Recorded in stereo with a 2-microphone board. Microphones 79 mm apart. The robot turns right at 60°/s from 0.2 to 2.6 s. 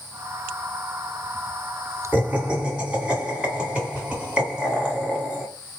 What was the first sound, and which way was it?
Laughter, 20° right (ahead or behind).